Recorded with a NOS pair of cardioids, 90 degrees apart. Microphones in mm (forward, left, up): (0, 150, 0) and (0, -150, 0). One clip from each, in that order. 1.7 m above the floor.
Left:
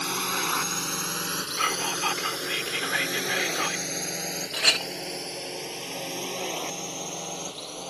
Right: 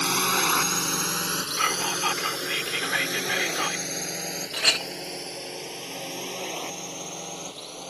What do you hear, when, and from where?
0.0 s a drone: 40° right; by 7.9 s 15° left
1.6 s whispering: 10° right
4.5 s a clink: straight ahead